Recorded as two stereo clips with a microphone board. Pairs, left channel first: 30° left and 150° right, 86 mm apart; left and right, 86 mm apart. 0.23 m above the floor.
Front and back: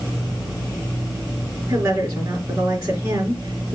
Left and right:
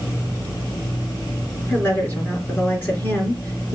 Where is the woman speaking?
160° left, 3.5 m.